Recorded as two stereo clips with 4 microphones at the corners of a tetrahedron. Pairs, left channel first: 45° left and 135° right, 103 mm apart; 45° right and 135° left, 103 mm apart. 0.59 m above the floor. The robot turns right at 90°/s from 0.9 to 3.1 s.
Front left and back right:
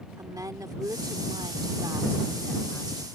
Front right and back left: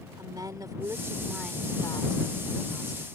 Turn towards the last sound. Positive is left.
turn(degrees=15)